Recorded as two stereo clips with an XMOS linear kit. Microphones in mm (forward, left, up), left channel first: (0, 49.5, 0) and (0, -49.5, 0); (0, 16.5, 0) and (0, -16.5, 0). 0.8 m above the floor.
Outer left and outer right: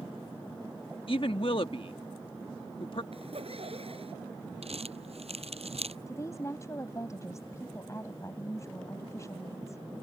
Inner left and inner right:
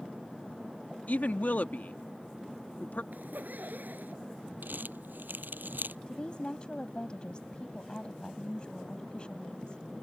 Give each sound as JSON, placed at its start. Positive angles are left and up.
{"t": 1.1, "sound": "a woman speaking", "side_deg": 60}
{"t": 3.1, "sound": "a zipper", "side_deg": -70}
{"t": 4.6, "sound": "crumpling", "side_deg": -80}
{"t": 6.1, "sound": "a woman speaking", "side_deg": 30}